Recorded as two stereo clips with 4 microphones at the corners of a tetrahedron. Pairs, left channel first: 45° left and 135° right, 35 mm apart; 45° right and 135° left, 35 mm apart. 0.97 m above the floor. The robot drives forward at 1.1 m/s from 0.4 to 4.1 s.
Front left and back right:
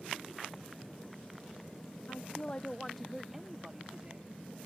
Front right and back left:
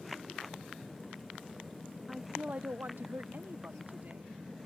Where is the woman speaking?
55° left; by 4.4 s 160° left.